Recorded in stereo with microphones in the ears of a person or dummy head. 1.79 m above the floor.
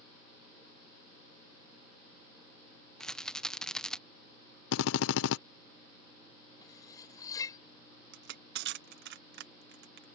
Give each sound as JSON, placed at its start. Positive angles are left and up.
{"t": 3.0, "sound": "a rattle", "side_deg": 0}
{"t": 4.7, "sound": "a drill", "side_deg": 70}
{"t": 6.6, "sound": "cutlery clinking", "side_deg": 20}
{"t": 8.1, "sound": "crushing", "side_deg": -70}